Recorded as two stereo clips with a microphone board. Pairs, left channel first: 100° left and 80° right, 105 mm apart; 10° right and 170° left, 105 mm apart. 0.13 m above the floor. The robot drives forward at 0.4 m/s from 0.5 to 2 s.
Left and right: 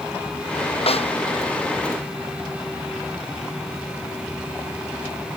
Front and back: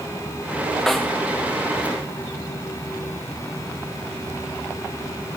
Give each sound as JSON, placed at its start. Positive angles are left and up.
{"t": 0.9, "sound": "a snare drum", "azimuth_deg": 80}